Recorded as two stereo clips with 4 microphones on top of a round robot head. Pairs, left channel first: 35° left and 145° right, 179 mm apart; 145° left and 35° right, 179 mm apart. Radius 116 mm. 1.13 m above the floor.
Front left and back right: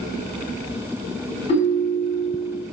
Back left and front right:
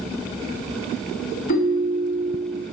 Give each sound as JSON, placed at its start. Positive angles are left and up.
{"t": 1.5, "sound": "a ringtone", "azimuth_deg": 95, "distance_m": 3.5}